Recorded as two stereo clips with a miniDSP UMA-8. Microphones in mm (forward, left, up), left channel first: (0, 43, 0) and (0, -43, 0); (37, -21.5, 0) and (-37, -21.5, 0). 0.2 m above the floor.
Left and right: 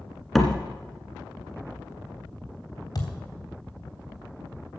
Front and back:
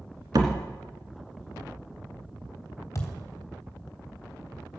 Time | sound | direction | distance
0.3 | a door slam | 175° left | 1.8 m
3.0 | a thud | 50° left | 3 m